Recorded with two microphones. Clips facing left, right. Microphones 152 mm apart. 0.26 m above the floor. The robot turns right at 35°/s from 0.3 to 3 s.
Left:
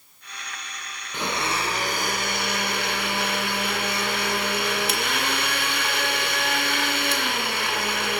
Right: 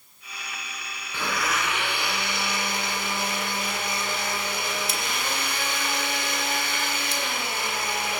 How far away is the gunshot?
I don't hear a gunshot.